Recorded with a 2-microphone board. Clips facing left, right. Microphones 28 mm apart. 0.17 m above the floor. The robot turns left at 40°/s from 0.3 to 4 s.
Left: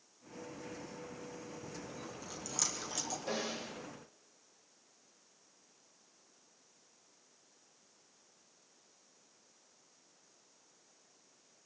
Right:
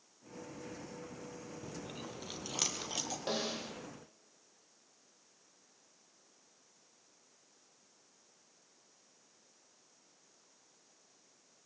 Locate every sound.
1.6 s chewing: 70° right (ahead or behind), 2.5 m; by 3.2 s 15° right (ahead or behind), 2.5 m
3.3 s a snare drum: 40° right (ahead or behind), 4 m; by 3.7 s 20° right (ahead or behind), 4 m